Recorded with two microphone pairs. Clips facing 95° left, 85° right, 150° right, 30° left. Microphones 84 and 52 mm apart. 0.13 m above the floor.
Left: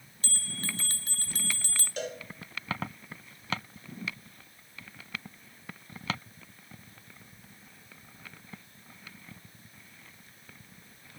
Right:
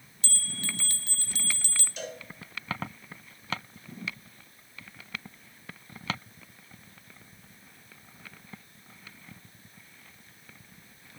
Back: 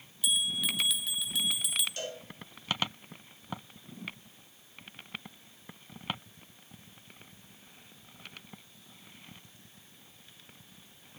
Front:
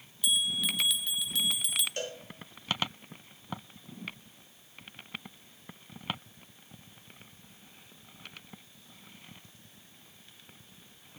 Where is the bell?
125° left, 0.7 m.